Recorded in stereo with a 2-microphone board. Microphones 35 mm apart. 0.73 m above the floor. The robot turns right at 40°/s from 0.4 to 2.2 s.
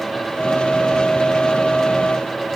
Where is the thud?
No thud in this recording.